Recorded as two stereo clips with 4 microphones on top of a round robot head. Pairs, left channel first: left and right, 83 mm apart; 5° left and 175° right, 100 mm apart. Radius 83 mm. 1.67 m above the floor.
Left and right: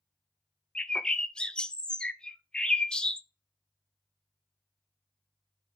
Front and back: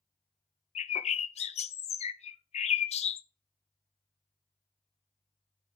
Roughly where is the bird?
Ahead.